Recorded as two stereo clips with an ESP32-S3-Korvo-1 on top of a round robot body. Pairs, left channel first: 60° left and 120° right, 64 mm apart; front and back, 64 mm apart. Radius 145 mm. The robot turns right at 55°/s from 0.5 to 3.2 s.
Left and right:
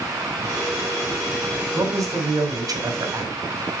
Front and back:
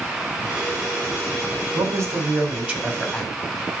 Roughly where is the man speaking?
Behind.